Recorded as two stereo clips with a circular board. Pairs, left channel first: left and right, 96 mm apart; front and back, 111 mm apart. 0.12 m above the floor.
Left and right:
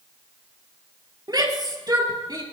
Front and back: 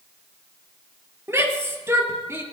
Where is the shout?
120° right, 3 m.